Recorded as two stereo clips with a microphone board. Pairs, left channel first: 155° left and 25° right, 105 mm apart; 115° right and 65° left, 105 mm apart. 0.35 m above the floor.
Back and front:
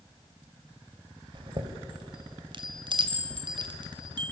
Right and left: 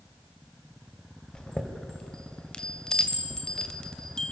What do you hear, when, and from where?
1.3 s a chime: 30° right, 2.0 m